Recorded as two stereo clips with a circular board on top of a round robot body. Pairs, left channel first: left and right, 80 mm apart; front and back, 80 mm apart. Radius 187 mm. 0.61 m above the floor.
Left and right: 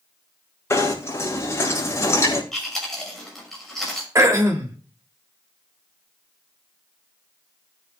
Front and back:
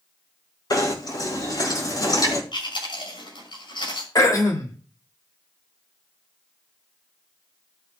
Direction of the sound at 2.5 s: 5° left.